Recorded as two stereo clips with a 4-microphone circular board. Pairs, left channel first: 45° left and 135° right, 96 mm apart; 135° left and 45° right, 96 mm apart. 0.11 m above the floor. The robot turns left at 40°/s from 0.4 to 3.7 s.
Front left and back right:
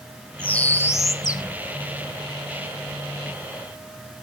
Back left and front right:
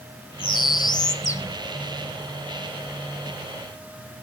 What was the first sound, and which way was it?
A bird, 125° left.